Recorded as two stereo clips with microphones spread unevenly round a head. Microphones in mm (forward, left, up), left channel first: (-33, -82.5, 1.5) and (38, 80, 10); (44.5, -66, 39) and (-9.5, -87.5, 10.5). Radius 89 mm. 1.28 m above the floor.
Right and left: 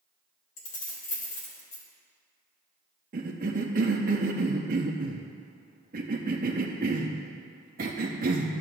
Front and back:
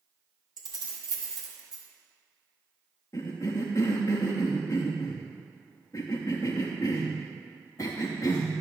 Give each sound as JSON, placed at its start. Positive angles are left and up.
{"t": 0.6, "sound": "keys jangling", "azimuth_deg": -135, "distance_m": 1.9}
{"t": 3.1, "sound": "a cough", "azimuth_deg": 85, "distance_m": 0.7}